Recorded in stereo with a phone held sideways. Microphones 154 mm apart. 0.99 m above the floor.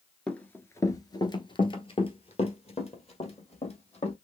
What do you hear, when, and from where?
0.3 s running footsteps: 5° left (ahead or behind), 0.9 m; by 4.2 s 45° left (ahead or behind), 2.5 m